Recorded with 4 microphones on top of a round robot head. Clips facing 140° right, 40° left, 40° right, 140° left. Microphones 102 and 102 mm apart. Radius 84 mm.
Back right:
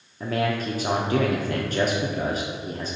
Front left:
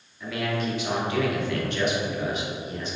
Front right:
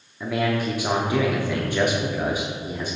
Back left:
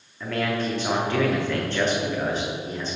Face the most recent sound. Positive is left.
turn(degrees=-115)